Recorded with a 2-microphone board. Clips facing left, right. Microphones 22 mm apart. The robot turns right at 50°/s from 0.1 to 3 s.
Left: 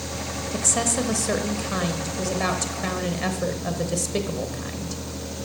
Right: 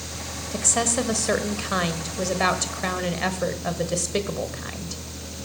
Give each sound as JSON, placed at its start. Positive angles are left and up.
{"t": 0.5, "sound": "a woman speaking", "side_deg": -5, "distance_m": 1.0}